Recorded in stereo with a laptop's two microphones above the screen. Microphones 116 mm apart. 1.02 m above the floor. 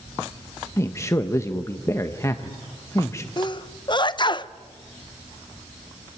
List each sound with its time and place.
0.8 s a man speaking: 25° left (ahead or behind), 0.8 m
3.4 s a sneeze: 40° left (ahead or behind), 0.7 m